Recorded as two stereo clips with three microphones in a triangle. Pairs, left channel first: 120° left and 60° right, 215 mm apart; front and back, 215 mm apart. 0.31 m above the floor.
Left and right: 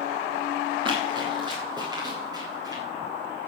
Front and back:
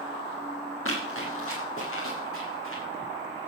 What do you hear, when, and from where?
0.8 s running footsteps: 10° left, 6 m; by 2.8 s 15° left, 8 m